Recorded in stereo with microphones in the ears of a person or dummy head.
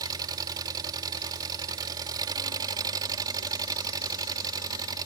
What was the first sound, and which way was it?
An engine running, 25° right (ahead or behind).